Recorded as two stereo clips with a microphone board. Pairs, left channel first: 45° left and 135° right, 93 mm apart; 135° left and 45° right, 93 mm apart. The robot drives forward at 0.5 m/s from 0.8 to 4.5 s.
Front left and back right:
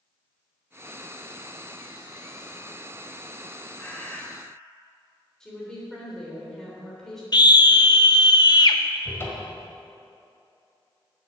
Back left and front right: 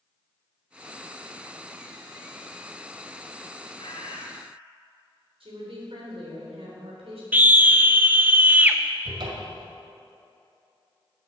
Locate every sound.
3.8 s a bird: 115° left, 1.6 m; by 4.3 s 120° left, 1.7 m
5.4 s a woman speaking: 40° right, 3.5 m
7.3 s a scream: 20° left, 0.8 m
9.1 s a cupboard door: 20° right, 1.8 m